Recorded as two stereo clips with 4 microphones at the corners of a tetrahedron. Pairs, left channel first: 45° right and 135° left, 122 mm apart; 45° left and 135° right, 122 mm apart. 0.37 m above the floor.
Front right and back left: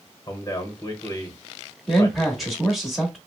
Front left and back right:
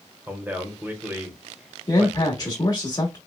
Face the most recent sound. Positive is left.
turn(degrees=50)